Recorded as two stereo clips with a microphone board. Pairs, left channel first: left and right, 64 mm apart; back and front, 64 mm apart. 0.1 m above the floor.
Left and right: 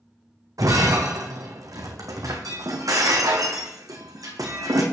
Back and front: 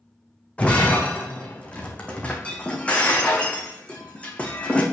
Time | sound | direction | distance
0.6 | breaking glass | 110° right | 2 m